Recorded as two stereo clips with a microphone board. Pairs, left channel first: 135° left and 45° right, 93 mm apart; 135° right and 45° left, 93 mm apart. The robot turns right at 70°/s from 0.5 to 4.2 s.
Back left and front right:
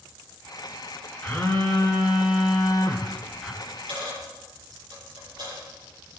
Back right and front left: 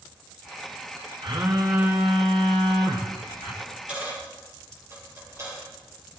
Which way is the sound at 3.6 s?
50° right.